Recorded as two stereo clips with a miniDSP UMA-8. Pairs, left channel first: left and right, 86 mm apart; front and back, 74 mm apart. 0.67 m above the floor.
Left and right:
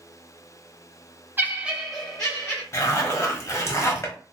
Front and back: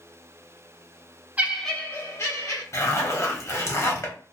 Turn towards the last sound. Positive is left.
turn(degrees=40)